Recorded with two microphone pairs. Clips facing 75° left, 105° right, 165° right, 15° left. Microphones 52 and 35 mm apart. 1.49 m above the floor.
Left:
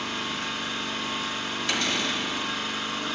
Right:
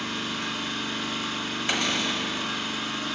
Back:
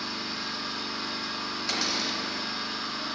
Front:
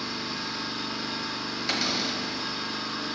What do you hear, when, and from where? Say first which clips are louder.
0.0 s an engine running: even, front 1 dB; 120° left, 2.5 m
1.7 s a cupboard door: right 1 dB, front 2 dB; 50° right, 1.1 m